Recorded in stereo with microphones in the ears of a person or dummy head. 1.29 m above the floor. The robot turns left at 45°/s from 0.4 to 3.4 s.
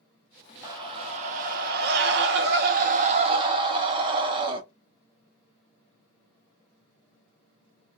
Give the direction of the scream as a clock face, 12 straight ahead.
1 o'clock.